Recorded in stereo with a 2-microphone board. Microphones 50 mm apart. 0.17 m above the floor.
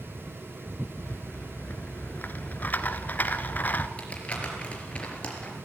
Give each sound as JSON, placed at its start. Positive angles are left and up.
{"t": 1.0, "sound": "a rattle", "side_deg": 35, "distance_m": 1.2}
{"t": 4.0, "sound": "crumpling", "side_deg": 25, "distance_m": 4.0}